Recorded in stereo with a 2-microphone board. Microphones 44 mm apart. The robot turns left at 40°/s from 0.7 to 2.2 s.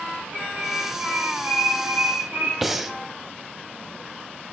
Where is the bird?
35° right, 5.5 m; by 2.5 s 95° right, 5.5 m.